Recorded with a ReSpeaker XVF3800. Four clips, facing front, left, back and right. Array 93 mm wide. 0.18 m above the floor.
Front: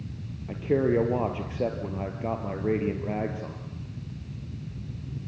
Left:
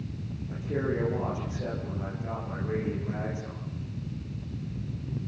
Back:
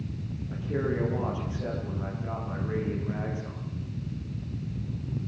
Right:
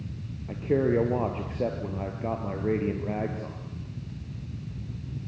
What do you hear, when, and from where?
0.5 s a man speaking: 40° right, 4 m